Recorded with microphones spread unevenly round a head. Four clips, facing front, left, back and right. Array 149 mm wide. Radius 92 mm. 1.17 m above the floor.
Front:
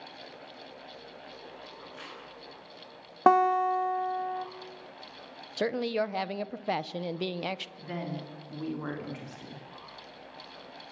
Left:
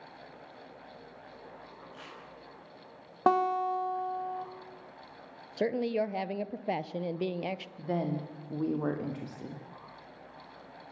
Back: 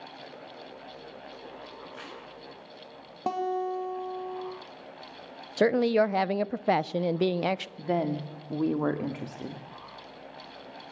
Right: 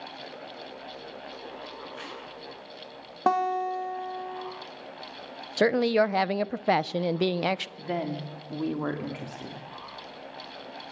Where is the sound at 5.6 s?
100° right, 0.6 m.